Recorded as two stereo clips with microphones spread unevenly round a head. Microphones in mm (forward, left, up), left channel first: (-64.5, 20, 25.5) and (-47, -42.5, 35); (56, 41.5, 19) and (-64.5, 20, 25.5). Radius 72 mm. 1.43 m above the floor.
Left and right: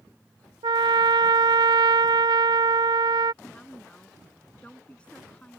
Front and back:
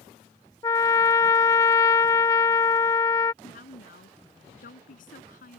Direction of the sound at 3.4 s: 25° left.